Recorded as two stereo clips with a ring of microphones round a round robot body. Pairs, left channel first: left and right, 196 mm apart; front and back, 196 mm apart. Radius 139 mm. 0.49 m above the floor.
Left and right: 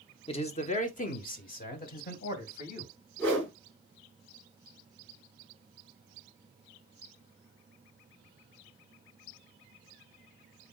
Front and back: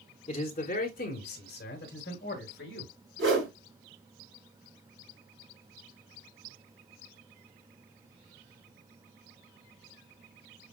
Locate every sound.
0.3 s a man speaking: 45° left, 0.9 m; by 2.9 s 50° left, 2.5 m
3.2 s a whoosh: 175° left, 2 m